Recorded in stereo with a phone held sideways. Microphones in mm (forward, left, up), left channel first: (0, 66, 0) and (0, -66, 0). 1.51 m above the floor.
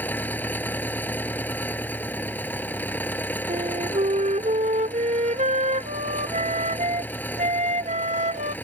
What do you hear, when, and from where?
0.0 s an engine running: 15° left (ahead or behind)
3.5 s a flute: 65° right (ahead or behind)